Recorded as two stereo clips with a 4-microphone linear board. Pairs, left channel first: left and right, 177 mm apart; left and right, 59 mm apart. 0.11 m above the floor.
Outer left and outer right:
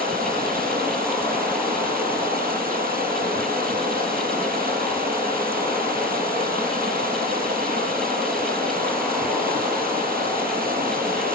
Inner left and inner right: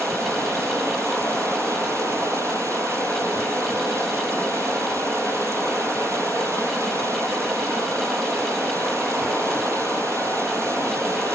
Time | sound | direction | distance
0.0 | running water | 60° right (ahead or behind) | 3 m